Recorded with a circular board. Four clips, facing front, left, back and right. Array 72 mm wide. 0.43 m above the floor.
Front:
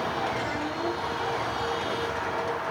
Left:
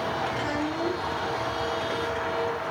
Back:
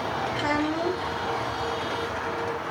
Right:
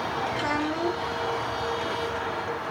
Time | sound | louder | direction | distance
0.3 | a child speaking | right 1 dB, back 4 dB | 155° right | 3 m